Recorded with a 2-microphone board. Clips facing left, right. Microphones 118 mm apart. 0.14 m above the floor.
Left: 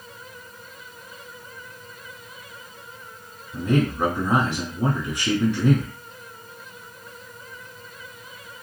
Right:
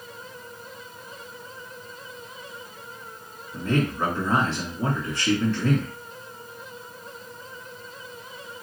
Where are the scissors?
I don't hear scissors.